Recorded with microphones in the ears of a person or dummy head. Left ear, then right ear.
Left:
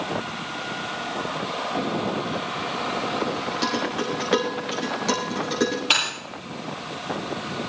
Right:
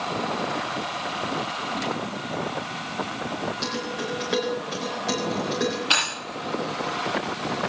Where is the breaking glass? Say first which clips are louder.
Even; 30° left (ahead or behind), 9.5 m.